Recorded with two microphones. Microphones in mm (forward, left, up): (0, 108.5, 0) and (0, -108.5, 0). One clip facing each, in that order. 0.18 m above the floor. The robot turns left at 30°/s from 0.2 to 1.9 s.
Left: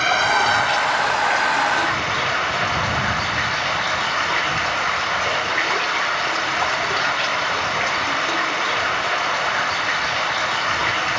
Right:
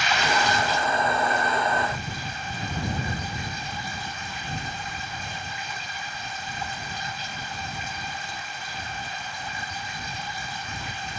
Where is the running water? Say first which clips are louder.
Left 3 dB; 125° left; by 11.2 s 75° left.